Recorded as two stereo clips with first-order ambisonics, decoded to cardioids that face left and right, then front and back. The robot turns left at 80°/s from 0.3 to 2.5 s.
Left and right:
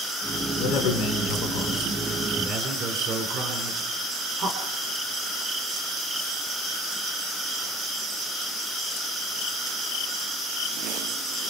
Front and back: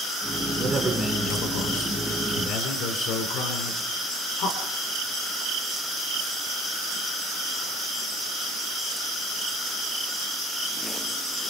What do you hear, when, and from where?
0.6 s a man speaking: 115° left, 4 m; by 4.6 s 40° right, 4 m